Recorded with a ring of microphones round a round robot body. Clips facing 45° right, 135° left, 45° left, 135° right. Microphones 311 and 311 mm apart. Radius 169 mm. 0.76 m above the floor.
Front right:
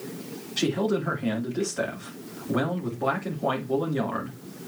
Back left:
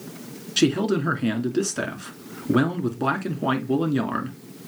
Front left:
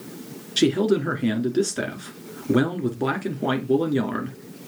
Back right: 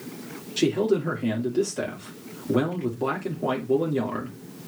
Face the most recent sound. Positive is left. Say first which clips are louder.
# back left 4 dB, front left 2 dB
turn(degrees=105)